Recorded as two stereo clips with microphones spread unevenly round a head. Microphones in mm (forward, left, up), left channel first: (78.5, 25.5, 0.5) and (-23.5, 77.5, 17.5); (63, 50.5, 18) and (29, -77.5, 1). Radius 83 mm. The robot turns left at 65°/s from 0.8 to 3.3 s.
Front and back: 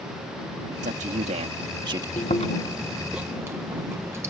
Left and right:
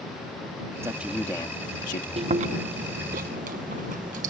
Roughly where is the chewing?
Ahead right.